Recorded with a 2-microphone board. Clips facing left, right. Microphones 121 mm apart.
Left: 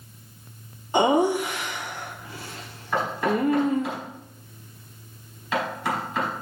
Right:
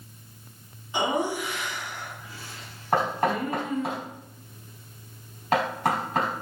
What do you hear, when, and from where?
0.9 s laughter: 45° left (ahead or behind), 0.9 m
2.9 s knocking: 45° right (ahead or behind), 4 m